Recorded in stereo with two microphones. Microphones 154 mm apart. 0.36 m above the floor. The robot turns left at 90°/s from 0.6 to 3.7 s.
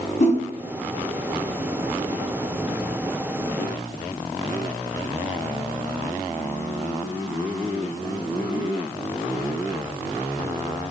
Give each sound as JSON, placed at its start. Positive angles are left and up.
{"t": 0.2, "sound": "a whoosh", "side_deg": 50, "distance_m": 2.5}